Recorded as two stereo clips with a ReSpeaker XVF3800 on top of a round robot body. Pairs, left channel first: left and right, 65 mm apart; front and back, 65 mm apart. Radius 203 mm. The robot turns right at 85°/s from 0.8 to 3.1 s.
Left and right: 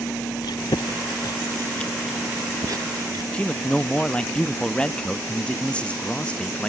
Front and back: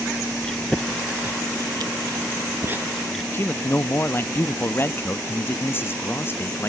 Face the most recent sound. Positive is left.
turn(degrees=25)